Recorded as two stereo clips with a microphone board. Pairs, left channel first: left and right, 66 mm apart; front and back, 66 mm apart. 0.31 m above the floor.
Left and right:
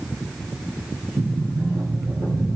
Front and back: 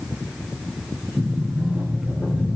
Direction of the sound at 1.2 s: 105° right.